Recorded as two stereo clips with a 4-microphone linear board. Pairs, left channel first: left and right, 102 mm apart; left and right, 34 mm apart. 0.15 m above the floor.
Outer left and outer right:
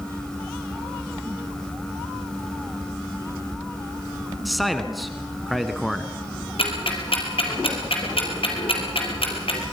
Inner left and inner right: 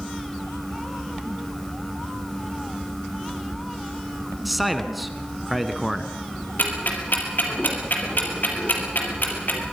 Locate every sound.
4.5 s a man speaking: centre (ahead or behind), 1.3 m
6.6 s ticking: 65° left (ahead or behind), 3.5 m